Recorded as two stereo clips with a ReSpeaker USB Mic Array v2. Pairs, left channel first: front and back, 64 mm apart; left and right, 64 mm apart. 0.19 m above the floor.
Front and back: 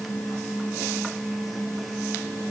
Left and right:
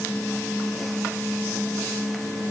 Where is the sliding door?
I don't hear a sliding door.